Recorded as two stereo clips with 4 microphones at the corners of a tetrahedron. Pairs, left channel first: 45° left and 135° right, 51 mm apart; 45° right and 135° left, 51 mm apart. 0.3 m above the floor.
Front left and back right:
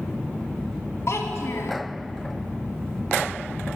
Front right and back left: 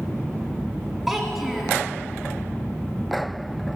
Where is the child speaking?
50° left, 1.3 m.